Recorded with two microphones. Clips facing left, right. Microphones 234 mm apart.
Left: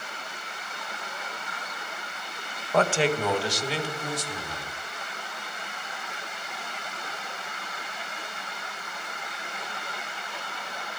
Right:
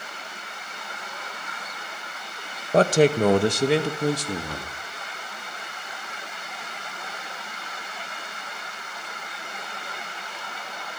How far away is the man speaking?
About 1.4 m.